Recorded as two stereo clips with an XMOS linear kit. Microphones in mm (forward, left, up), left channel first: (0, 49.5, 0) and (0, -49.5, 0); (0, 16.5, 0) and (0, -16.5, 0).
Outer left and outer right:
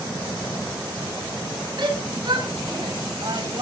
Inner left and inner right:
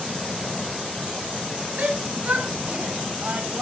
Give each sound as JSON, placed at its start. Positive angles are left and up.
{"t": 1.8, "sound": "a shout", "side_deg": -50, "distance_m": 4.5}